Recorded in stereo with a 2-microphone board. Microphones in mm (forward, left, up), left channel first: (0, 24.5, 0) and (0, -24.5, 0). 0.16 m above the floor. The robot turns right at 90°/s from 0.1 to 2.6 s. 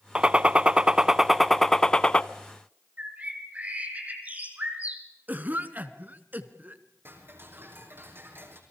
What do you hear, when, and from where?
0.1 s a gunshot: 20° right (ahead or behind), 0.7 m; by 2.2 s 25° left (ahead or behind), 0.7 m
3.0 s a bird: 35° right (ahead or behind), 3 m
5.3 s a cough: 40° right (ahead or behind), 1.8 m
7.0 s ticking: 55° right (ahead or behind), 4 m